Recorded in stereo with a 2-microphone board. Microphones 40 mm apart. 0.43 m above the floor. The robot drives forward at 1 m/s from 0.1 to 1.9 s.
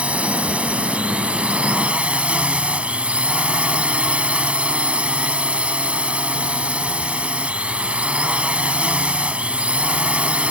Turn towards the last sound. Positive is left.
turn(degrees=-30)  # may be behind; listen again after turning